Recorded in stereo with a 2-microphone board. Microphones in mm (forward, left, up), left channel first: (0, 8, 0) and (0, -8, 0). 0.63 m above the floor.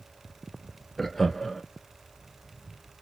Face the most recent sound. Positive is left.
turn(degrees=5)  # may be behind; listen again after turning